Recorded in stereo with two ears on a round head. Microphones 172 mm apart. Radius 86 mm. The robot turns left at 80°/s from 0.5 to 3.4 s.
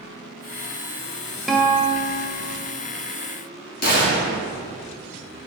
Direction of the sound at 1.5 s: Straight behind.